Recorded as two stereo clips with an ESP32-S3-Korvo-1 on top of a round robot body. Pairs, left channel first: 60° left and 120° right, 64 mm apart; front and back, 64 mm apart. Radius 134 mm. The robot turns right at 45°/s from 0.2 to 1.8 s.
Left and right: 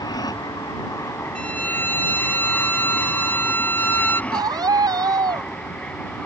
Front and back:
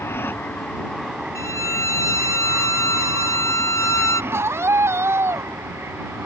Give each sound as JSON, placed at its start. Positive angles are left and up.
{"t": 0.0, "sound": "an aircraft", "azimuth_deg": 55}
{"t": 1.4, "sound": "a violin", "azimuth_deg": -10}
{"t": 4.3, "sound": "a scream", "azimuth_deg": -130}